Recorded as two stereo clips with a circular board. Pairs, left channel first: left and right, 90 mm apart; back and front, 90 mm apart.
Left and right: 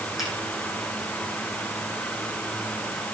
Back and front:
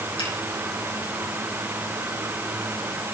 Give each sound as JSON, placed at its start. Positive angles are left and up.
{"t": 0.2, "sound": "a finger snap", "azimuth_deg": -175, "distance_m": 6.0}